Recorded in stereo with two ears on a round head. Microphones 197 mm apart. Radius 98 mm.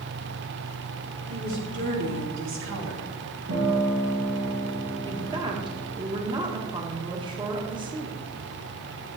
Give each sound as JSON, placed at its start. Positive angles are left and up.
{"t": 1.3, "sound": "a woman speaking", "side_deg": -50, "distance_m": 4.5}
{"t": 3.5, "sound": "a guitar", "side_deg": -70, "distance_m": 3.5}
{"t": 5.1, "sound": "a woman speaking", "side_deg": -20, "distance_m": 1.7}